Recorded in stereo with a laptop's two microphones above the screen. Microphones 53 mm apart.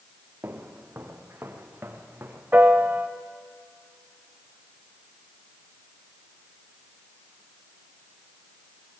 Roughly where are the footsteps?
Right.